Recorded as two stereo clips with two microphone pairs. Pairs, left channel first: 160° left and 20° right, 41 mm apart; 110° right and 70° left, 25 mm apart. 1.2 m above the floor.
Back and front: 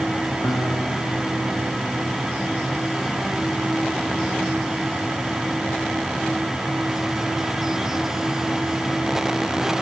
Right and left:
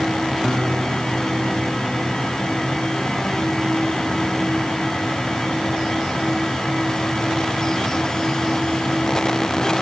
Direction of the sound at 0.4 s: 170° left.